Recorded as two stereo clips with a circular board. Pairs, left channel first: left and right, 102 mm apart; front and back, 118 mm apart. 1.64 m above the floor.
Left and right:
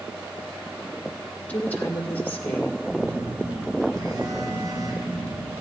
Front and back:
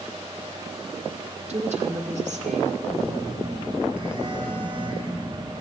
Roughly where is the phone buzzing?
Behind right.